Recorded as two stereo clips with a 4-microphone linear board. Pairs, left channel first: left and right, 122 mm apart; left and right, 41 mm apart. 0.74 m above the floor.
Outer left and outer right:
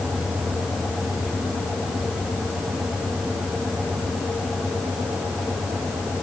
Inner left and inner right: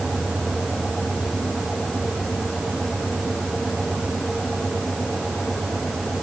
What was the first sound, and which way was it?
Only background noise.